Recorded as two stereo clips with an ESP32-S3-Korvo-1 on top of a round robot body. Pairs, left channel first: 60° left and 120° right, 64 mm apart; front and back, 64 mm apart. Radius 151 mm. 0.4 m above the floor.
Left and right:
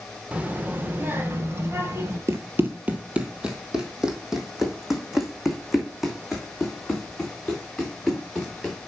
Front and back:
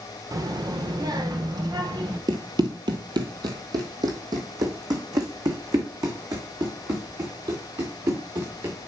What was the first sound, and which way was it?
A child speaking, 170° left.